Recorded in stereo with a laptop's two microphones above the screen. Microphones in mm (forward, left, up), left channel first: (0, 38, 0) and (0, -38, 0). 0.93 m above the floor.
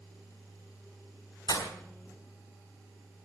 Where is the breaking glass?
85° left, 3 m.